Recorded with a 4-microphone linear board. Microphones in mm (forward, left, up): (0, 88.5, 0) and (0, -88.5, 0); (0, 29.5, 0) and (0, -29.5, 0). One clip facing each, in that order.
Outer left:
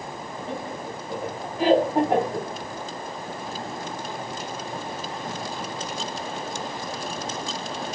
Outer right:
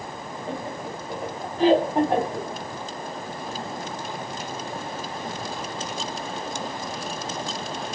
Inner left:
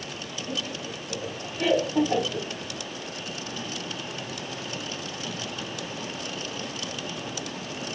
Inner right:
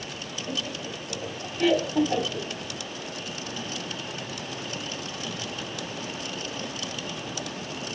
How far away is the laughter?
About 1.6 m.